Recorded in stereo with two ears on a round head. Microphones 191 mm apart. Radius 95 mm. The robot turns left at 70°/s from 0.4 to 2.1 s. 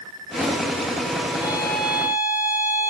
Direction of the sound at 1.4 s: 35° left.